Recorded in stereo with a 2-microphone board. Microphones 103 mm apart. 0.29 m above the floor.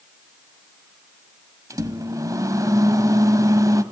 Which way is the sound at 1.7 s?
35° right (ahead or behind).